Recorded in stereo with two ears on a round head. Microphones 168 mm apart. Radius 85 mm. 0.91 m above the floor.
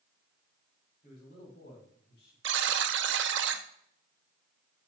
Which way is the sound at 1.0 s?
45° left (ahead or behind).